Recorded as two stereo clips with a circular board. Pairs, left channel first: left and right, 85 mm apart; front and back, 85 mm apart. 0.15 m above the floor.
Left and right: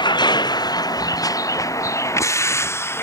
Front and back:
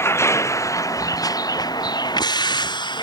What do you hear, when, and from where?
0.0 s a vehicle: 60° left; by 3.0 s 30° left